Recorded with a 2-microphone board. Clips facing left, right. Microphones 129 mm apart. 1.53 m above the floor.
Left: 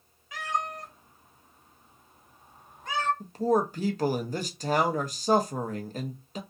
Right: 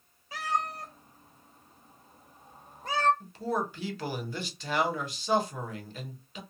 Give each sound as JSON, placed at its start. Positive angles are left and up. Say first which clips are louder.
{"t": 0.3, "sound": "a cat meowing", "louder": "even", "side_deg": -35, "distance_m": 0.8}
{"t": 3.2, "sound": "a man speaking", "louder": "left 7 dB", "side_deg": 40, "distance_m": 0.6}